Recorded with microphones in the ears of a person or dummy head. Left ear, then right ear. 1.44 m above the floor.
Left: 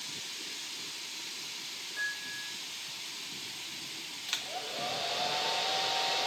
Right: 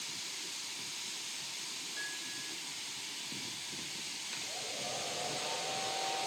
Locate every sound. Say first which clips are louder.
2.0 s a piano: left 9 dB; 25° left (ahead or behind), 4.5 m
4.3 s a hair dryer: left 8 dB; 50° left (ahead or behind), 2.5 m